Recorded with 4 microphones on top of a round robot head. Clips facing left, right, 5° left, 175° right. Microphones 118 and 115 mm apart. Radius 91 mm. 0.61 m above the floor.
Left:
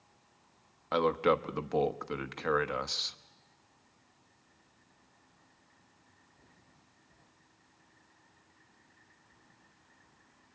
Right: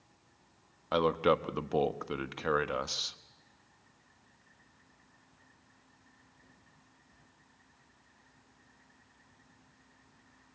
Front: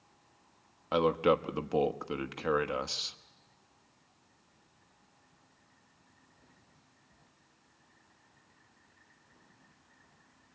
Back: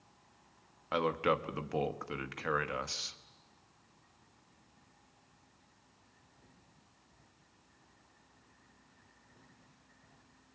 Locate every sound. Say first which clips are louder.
0.9 s a man speaking: even, front 5 dB; 20° right, 1.2 m